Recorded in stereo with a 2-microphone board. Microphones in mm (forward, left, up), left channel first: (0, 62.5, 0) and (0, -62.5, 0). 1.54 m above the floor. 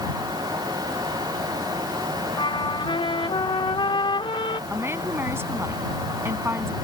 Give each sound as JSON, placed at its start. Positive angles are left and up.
{"t": 2.4, "sound": "a trumpet", "side_deg": 40}
{"t": 4.7, "sound": "a woman speaking", "side_deg": -20}